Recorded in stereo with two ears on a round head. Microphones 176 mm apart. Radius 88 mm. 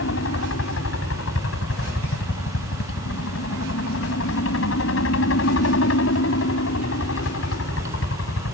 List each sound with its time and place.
0.0 s a helicopter: 70° left (ahead or behind)